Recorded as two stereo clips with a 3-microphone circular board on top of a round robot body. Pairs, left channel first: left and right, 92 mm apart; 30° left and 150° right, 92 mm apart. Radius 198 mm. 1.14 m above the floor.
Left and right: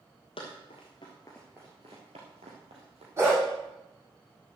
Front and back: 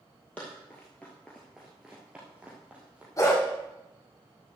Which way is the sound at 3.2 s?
25° right.